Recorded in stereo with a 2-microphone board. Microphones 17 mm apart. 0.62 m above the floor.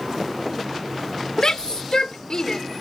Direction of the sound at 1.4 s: 50° left (ahead or behind).